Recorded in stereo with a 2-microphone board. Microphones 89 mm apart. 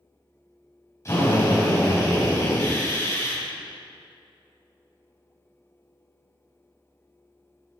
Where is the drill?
35° left (ahead or behind), 4.5 m.